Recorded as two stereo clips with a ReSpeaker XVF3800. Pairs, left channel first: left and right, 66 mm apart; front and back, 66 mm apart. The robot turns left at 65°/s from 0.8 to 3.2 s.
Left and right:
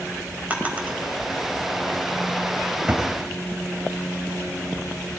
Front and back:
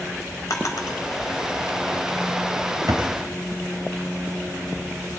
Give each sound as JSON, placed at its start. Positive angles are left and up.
{"t": 0.5, "sound": "a drawer", "azimuth_deg": -25, "distance_m": 1.9}